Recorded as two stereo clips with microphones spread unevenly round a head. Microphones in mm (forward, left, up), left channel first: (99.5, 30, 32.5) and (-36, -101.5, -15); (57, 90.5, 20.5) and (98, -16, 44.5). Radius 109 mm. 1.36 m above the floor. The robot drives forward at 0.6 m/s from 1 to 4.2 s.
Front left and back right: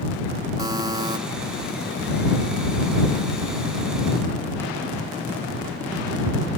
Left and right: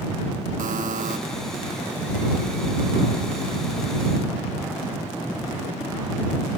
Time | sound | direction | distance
0.6 | a buzzer | 65° right | ?